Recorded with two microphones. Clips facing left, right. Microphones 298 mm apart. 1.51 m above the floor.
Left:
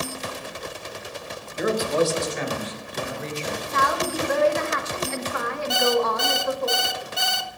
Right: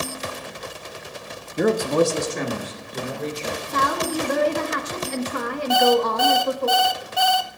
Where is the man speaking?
60° right (ahead or behind), 0.9 m; by 3.6 s 50° right (ahead or behind), 3.5 m.